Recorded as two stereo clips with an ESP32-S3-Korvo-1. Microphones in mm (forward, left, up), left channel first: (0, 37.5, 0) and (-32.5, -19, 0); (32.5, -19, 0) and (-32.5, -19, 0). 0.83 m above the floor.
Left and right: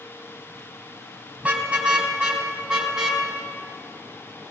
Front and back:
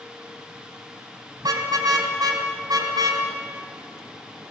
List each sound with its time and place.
1.4 s a car horn: 165° left, 3.5 m; by 3.2 s 160° left, 4 m